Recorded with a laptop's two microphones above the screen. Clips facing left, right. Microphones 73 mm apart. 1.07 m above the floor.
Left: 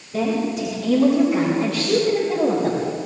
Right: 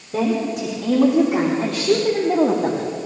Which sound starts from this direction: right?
A woman speaking, at 0.1 s.